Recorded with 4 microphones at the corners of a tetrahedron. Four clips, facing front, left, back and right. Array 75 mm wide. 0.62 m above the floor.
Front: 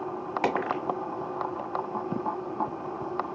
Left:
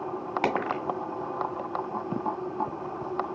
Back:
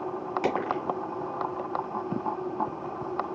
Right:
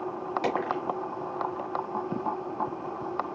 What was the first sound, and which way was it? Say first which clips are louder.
A dropped coin: left 1 dB, front 1 dB; 55° left.